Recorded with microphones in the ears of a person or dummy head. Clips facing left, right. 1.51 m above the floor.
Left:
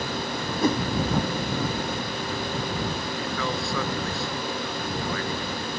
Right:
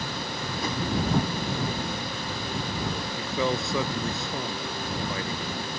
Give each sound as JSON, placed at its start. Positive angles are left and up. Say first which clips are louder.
{"t": 0.6, "sound": "a whoosh", "louder": "left 9 dB", "side_deg": 50}
{"t": 3.2, "sound": "a man speaking", "louder": "right 5 dB", "side_deg": -15}